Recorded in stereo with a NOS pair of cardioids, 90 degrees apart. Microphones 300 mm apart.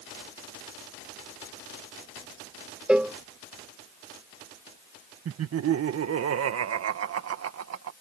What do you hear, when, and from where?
2.9 s a cowbell: 5° right
5.2 s laughter: 55° right